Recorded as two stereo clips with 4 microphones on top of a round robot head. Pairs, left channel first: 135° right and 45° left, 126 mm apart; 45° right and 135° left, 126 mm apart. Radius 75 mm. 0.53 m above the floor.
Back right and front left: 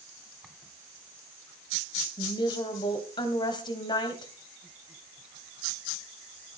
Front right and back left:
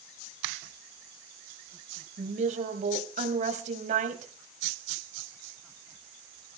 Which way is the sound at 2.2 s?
165° left.